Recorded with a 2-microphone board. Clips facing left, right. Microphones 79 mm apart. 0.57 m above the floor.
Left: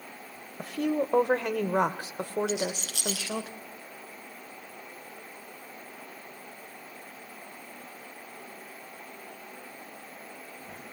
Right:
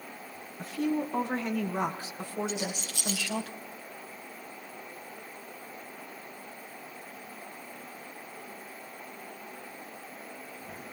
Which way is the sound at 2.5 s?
75° left (ahead or behind).